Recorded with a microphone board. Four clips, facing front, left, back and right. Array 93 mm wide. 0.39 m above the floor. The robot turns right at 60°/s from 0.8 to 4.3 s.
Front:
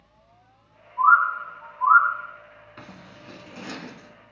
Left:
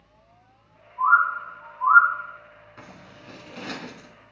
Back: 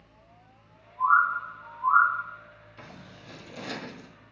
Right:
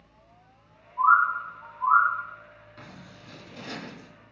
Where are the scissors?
15° left, 1.2 m; by 4.1 s 95° left, 1.2 m.